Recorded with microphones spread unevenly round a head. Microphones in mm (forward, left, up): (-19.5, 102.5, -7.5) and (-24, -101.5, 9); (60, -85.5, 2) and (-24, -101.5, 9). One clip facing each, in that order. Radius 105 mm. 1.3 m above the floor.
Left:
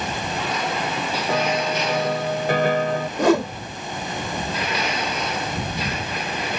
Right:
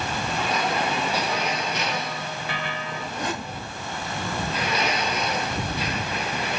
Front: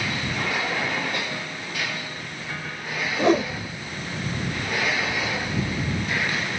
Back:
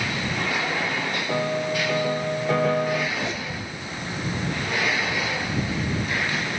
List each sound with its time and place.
1.3 s a piano: 135° left
3.2 s a whoosh: 60° left